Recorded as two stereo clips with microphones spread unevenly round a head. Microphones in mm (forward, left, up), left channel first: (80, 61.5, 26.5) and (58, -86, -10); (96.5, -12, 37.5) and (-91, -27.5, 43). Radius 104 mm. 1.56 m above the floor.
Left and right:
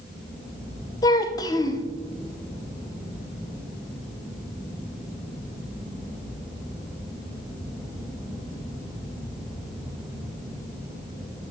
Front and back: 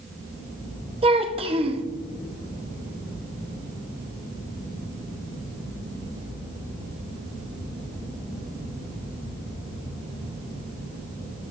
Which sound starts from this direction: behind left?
A child speaking, at 1.0 s.